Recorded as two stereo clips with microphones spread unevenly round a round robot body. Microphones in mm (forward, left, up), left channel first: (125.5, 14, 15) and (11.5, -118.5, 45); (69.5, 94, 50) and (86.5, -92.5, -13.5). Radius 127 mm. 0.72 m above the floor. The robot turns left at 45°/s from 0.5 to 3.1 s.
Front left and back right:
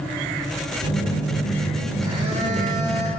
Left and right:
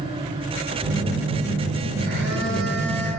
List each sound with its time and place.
0.8 s a phone buzzing: 5° right, 2.5 m; by 3.1 s 105° right, 2.5 m